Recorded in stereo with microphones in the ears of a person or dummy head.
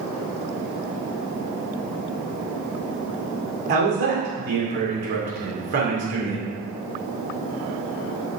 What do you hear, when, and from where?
3.7 s a man speaking: 50° right (ahead or behind), 2.5 m